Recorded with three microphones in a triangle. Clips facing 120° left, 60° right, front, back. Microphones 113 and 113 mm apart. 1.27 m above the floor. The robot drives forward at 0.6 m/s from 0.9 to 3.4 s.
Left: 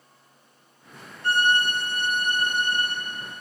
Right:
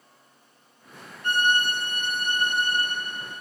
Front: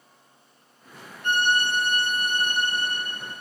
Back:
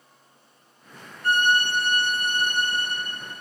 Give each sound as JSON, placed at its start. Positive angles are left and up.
{"t": 1.2, "sound": "a violin", "azimuth_deg": 155, "distance_m": 0.5}